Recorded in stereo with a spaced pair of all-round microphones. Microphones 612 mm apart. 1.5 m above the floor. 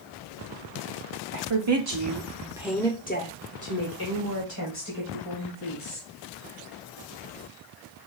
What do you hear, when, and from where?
1.3 s a woman speaking: 55° right (ahead or behind), 0.8 m; by 6.1 s 50° left (ahead or behind), 2 m